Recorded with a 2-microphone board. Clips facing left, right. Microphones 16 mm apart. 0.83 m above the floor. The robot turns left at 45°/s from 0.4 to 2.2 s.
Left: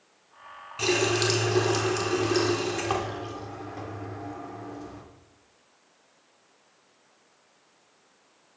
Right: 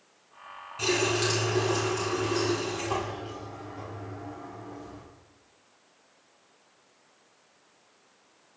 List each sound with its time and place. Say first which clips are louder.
0.8 s a running tap: left 2 dB; 155° left, 1.1 m; by 5.0 s 90° left, 1.1 m